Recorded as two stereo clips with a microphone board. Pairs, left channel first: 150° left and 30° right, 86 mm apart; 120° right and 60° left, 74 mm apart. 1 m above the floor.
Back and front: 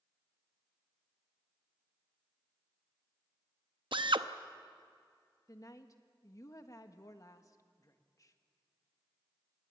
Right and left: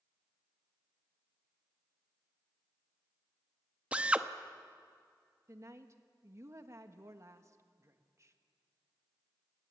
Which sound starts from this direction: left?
A woman speaking, at 5.5 s.